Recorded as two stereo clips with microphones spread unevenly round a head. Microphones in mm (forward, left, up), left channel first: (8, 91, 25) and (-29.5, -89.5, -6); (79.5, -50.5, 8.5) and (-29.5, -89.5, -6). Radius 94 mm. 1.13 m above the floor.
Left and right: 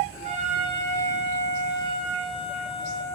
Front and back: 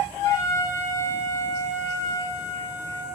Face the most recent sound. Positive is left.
turn(degrees=-40)